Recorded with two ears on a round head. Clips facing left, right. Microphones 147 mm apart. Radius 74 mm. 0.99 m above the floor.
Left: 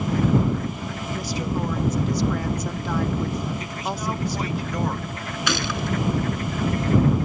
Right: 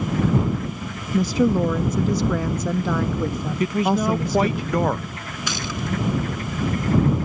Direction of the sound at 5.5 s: 60° left (ahead or behind).